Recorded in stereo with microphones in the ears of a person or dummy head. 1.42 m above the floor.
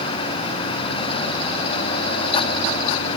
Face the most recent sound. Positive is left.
No sound to turn to.